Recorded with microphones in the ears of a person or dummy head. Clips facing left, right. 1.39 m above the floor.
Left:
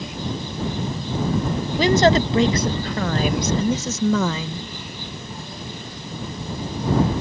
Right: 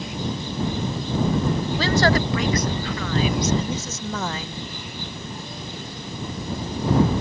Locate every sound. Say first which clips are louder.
1.8 s a woman speaking: left 6 dB; 15° left (ahead or behind); by 4.7 s 80° left